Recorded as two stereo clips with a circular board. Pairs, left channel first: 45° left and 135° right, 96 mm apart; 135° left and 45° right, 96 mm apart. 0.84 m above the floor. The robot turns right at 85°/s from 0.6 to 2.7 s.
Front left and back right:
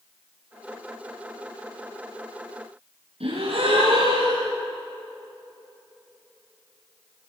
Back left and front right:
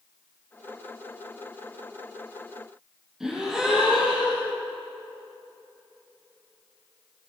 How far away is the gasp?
About 9 m.